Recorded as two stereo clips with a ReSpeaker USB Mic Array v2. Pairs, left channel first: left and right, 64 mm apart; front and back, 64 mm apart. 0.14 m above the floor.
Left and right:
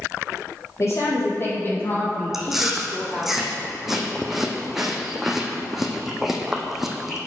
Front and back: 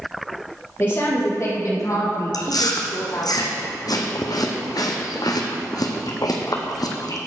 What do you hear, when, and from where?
0.8 s a woman speaking: 60° left, 3.5 m; by 3.3 s 10° left, 3.5 m
2.3 s chewing: 5° right, 1.5 m